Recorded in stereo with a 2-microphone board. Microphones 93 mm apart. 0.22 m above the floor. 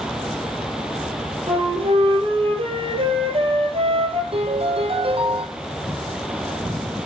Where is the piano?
80° right, 4.5 m.